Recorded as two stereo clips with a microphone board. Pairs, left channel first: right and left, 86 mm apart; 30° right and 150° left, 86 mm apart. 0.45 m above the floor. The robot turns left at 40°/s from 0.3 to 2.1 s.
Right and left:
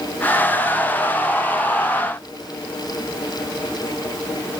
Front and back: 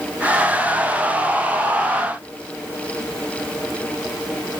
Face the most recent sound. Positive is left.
No sound to turn to.